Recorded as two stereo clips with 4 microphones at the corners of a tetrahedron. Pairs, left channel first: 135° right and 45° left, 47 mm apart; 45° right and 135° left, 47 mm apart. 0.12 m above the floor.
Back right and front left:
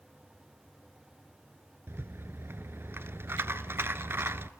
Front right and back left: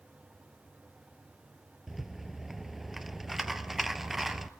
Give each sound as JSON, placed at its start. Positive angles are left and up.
{"t": 1.9, "sound": "a rattle", "azimuth_deg": 50, "distance_m": 0.9}